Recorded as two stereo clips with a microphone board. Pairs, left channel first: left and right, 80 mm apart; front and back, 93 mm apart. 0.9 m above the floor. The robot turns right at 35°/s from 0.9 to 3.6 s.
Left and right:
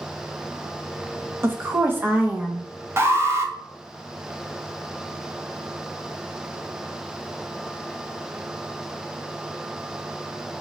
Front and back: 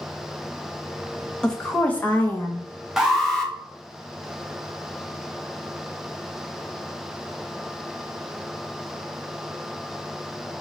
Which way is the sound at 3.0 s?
100° right.